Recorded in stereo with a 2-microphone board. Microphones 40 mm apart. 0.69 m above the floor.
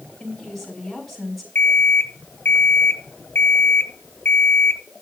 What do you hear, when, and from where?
0.2 s a woman speaking: 5° left (ahead or behind), 5 m
1.6 s an alarm clock: 75° left (ahead or behind), 0.9 m